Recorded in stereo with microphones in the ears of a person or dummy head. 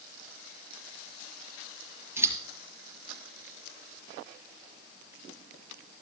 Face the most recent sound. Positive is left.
turn(degrees=-10)  # may be behind; listen again after turning